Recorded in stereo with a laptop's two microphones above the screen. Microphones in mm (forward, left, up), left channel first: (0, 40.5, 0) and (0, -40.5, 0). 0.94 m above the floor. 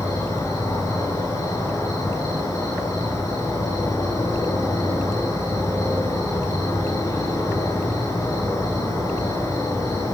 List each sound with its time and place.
0.0 s an insect: 45° left (ahead or behind), 9 m